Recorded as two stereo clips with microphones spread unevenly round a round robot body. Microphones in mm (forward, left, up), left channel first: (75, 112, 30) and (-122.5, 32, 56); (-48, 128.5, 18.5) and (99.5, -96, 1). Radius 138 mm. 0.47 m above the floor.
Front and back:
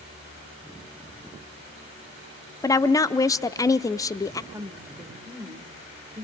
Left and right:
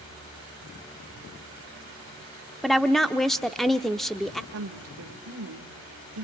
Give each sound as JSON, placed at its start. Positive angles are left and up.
{"t": 2.6, "sound": "a woman speaking", "azimuth_deg": 30, "distance_m": 0.7}
{"t": 4.5, "sound": "a woman speaking", "azimuth_deg": -75, "distance_m": 1.4}